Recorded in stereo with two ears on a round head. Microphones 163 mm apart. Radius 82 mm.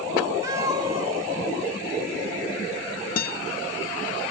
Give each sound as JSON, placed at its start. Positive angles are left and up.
{"t": 0.4, "sound": "a cat meowing", "side_deg": -15, "distance_m": 1.2}
{"t": 3.2, "sound": "a guitar", "side_deg": 50, "distance_m": 0.5}